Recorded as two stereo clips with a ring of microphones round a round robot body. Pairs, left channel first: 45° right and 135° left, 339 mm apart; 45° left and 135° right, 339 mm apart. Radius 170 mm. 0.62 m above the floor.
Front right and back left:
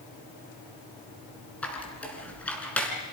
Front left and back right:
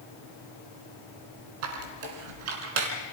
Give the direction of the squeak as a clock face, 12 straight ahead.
4 o'clock.